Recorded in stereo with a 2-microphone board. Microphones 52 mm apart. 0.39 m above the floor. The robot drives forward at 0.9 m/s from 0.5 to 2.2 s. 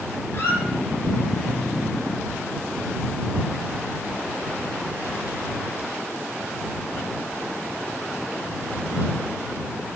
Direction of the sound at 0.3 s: 45° left (ahead or behind).